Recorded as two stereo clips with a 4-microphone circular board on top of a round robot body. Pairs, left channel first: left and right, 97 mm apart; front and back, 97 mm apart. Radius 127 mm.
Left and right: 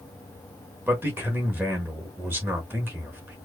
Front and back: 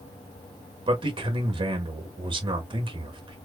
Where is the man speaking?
155° right, 1.5 m.